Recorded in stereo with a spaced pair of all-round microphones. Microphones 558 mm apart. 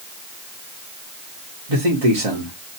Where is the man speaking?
60° right (ahead or behind), 1.2 m.